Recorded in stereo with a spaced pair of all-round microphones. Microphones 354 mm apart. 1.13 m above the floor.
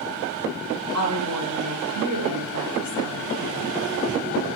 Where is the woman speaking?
50° right (ahead or behind), 5 m; by 3.7 s 80° right, 4 m.